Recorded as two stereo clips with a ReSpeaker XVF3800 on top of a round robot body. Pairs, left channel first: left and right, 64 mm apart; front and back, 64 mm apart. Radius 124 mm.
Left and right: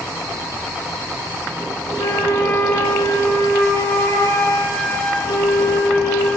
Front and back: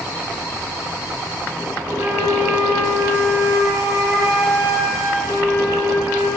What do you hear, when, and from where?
2.0 s a flute: 150° left, 8 m